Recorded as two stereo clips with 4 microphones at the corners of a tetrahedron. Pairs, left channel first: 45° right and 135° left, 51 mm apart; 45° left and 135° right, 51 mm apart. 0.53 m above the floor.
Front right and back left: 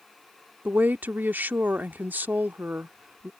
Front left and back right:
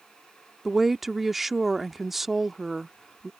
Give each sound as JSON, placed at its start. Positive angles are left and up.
{"t": 0.7, "sound": "a woman speaking", "azimuth_deg": 140}